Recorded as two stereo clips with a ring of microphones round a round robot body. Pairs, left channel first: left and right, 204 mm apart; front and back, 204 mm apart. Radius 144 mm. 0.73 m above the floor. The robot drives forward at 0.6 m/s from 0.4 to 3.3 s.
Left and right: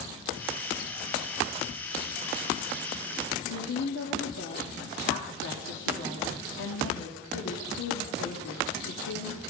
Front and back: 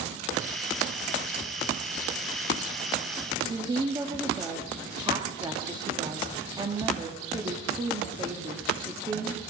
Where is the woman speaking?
110° left, 1.3 m.